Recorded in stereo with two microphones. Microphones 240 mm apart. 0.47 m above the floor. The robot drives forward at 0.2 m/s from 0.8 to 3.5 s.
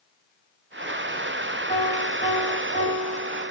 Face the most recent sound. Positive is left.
turn(degrees=30)  # may be behind; listen again after turning